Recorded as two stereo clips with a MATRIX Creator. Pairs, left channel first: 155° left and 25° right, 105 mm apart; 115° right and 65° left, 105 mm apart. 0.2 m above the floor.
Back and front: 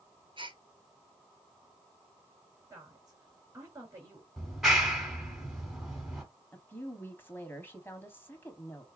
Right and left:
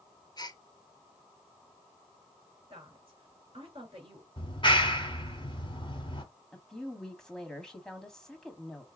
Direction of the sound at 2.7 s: 30° left.